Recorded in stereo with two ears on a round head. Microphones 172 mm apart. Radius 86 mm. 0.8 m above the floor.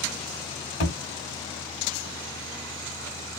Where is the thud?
50° left (ahead or behind), 1.4 m.